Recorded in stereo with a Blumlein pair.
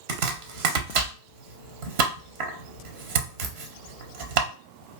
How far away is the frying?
No frying in this recording.